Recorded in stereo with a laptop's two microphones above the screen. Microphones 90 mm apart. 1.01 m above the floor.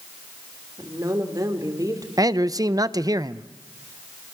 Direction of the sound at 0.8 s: 40° right (ahead or behind).